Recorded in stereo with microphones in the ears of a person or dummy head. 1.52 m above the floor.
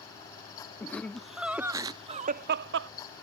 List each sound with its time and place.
0.8 s laughter: 15° left (ahead or behind); by 2.9 s 70° right (ahead or behind)